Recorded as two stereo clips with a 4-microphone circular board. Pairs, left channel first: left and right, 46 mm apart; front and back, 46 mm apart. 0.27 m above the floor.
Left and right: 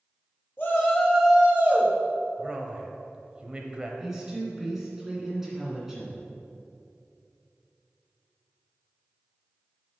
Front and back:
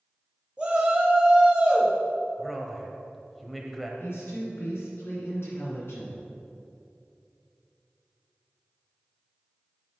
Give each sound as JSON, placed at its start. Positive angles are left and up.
{"t": 0.6, "sound": "a shout", "azimuth_deg": 115, "distance_m": 1.3}
{"t": 2.4, "sound": "a man speaking", "azimuth_deg": -85, "distance_m": 0.9}
{"t": 4.0, "sound": "a woman speaking", "azimuth_deg": -10, "distance_m": 2.5}